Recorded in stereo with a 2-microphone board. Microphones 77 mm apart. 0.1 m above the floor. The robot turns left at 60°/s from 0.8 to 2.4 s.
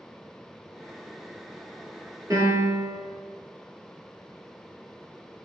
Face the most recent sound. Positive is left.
turn(degrees=-45)  # may be behind; listen again after turning